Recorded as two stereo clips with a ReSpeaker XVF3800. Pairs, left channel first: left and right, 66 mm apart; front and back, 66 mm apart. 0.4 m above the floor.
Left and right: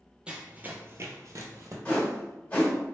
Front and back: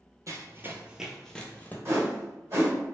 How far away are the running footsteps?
About 0.6 m.